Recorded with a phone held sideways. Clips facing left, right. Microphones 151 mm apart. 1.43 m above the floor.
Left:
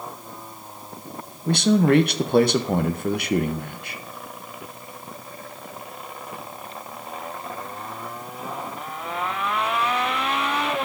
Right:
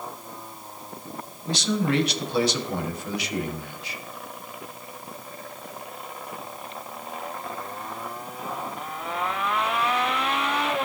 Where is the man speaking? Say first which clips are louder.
Left 7 dB; 55° left (ahead or behind), 0.7 m.